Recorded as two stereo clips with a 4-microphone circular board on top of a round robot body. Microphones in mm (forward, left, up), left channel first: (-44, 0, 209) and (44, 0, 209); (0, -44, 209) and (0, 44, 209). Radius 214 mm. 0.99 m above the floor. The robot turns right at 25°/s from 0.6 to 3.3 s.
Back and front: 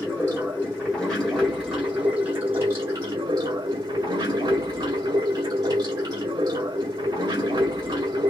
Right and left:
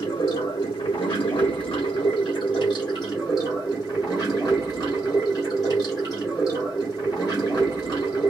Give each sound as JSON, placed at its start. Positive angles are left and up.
{"t": 0.0, "sound": "running water", "azimuth_deg": -115, "distance_m": 0.7}